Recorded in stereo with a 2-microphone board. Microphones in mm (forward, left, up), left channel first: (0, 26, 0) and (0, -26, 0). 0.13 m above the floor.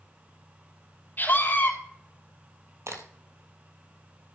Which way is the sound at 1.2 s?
40° left (ahead or behind).